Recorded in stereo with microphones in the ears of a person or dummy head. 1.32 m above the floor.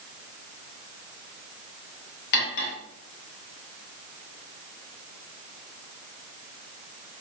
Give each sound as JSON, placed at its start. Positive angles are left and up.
{"t": 2.3, "sound": "cutlery clinking", "side_deg": 55, "distance_m": 0.7}